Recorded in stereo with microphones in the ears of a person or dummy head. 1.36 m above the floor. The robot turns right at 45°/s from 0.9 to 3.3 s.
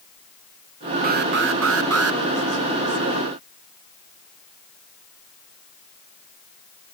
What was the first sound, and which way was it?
An alarm, 135° right.